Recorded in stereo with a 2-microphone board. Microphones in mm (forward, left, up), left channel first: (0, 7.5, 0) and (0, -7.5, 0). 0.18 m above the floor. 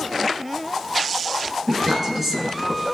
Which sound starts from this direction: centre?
A woman speaking, at 1.7 s.